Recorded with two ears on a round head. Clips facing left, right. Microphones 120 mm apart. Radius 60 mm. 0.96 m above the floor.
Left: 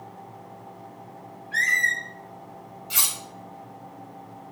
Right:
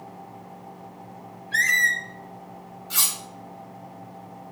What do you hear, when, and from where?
1.5 s a squeak: 40° right (ahead or behind), 2.0 m
2.9 s cutlery clinking: 20° left (ahead or behind), 1.4 m